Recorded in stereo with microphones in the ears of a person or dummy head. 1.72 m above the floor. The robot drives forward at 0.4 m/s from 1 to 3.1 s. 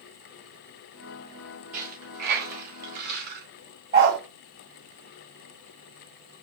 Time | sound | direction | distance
1.7 | a dropped coin | 45° right (ahead or behind) | 2.5 m
3.9 | a dog barking | 50° right (ahead or behind) | 2.5 m